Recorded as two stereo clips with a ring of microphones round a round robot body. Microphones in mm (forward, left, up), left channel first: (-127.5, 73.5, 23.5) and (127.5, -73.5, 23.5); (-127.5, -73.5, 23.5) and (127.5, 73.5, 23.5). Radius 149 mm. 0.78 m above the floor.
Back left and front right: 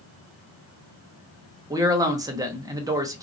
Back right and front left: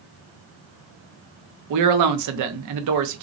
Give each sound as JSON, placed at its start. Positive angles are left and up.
{"t": 1.7, "sound": "a man speaking", "azimuth_deg": 50, "distance_m": 0.7}